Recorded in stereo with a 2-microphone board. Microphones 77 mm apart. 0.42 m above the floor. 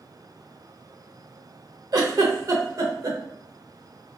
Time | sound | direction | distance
1.9 | a giggle | 50° right (ahead or behind) | 0.7 m